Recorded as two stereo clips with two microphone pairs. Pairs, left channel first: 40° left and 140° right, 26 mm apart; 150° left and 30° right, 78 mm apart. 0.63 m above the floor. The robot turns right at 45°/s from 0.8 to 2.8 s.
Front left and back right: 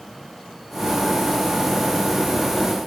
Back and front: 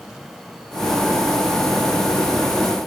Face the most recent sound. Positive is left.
No sound to turn to.